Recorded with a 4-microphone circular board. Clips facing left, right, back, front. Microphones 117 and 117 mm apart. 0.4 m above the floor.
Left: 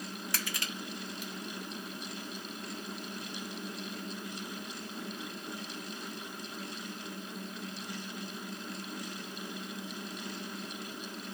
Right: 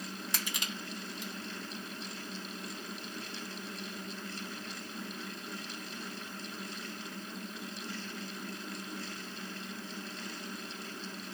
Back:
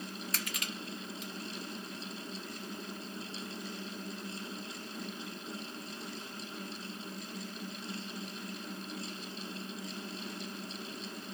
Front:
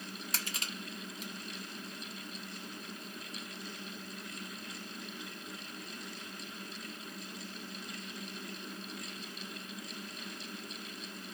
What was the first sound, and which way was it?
Crushing, 35° right.